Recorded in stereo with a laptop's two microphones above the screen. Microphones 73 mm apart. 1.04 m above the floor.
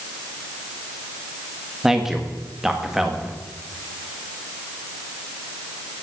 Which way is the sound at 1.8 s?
5° right (ahead or behind).